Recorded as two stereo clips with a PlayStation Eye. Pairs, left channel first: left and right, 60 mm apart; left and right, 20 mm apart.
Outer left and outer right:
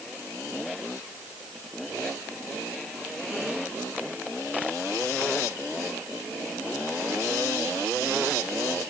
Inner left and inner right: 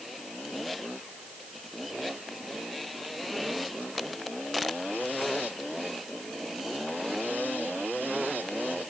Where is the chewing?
I don't hear chewing.